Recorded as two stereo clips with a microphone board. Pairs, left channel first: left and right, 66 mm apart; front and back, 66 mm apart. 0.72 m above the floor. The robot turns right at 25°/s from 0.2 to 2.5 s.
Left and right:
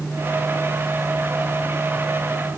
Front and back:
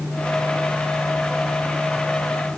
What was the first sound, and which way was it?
Only background noise.